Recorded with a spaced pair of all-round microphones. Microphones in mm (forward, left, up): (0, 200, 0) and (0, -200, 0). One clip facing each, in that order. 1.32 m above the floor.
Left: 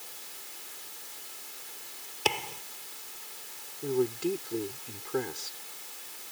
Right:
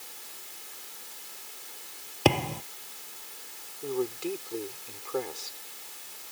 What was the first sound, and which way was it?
A thud, 70° right (ahead or behind).